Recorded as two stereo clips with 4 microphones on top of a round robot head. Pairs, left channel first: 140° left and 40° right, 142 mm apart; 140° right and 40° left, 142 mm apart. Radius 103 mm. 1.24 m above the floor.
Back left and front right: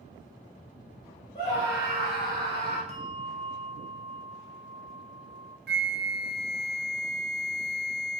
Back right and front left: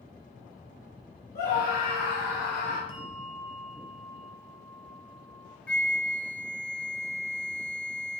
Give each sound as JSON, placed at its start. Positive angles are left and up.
{"t": 1.4, "sound": "a scream", "azimuth_deg": -160, "distance_m": 5.0}
{"t": 2.9, "sound": "a bell", "azimuth_deg": -85, "distance_m": 0.9}
{"t": 5.7, "sound": "a flute", "azimuth_deg": -60, "distance_m": 0.6}